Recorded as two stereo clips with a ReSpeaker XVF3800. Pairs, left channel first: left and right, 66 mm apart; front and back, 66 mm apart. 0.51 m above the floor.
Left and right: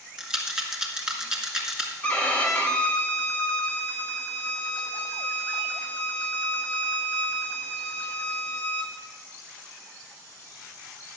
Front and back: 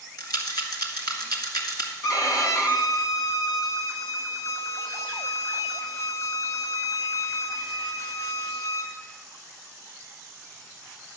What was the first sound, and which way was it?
A rattle, 10° right.